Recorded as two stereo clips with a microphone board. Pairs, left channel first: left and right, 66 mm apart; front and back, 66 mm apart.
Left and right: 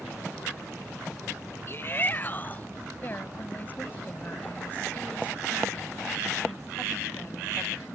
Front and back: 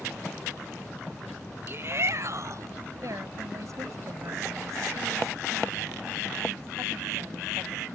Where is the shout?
135° left; by 2.7 s 150° left.